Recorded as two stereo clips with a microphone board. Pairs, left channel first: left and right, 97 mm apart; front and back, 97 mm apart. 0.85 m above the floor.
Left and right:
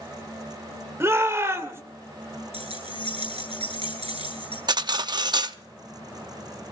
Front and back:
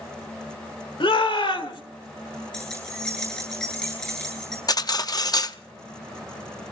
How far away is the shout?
About 2.5 m.